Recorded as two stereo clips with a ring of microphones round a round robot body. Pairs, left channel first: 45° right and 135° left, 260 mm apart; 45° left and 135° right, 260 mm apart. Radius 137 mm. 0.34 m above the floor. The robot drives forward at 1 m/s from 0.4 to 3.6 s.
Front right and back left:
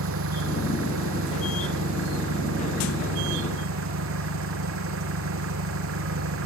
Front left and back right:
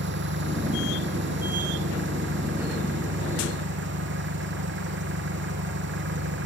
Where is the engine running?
175° left.